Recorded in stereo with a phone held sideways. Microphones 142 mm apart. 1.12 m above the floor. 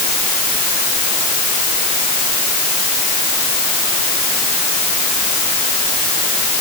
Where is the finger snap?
I don't hear a finger snap.